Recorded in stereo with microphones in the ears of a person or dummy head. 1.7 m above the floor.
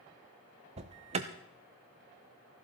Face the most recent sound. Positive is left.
turn(degrees=-30)  # may be behind; listen again after turning